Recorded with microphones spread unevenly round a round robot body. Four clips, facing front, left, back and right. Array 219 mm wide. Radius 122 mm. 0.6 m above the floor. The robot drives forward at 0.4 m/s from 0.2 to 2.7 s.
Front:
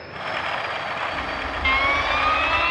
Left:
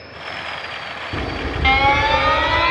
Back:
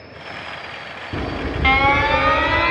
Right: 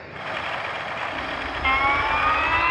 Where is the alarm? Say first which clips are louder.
Left 4 dB, back 3 dB; 135° left; by 2.7 s 155° left.